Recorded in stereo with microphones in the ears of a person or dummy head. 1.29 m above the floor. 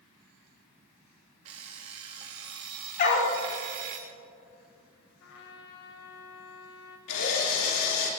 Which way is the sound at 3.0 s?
45° left (ahead or behind).